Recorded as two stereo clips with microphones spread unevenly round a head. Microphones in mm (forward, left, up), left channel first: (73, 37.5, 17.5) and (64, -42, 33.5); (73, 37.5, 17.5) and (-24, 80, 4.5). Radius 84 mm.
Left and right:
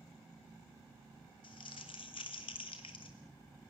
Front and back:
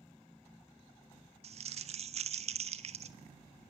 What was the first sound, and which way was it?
Crumpling, 135° left.